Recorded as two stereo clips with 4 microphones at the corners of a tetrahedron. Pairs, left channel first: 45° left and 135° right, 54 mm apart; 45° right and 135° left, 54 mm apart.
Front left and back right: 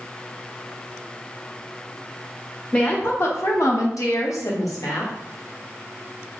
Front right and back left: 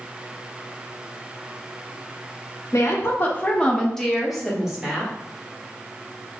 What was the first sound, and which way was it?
A woman speaking, 15° right.